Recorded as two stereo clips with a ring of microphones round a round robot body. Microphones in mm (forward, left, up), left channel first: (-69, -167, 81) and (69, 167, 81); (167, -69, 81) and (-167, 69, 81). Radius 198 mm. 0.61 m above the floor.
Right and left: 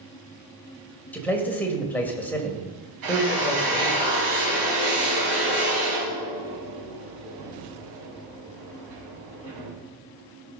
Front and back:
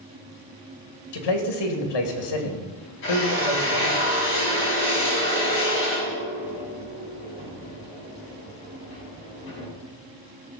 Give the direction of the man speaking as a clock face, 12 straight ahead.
1 o'clock.